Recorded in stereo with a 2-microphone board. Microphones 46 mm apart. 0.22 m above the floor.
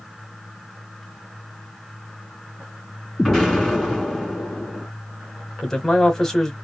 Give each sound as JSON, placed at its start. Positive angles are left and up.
{"t": 3.2, "sound": "an explosion", "side_deg": 5, "distance_m": 2.5}
{"t": 5.6, "sound": "a man speaking", "side_deg": 10, "distance_m": 1.1}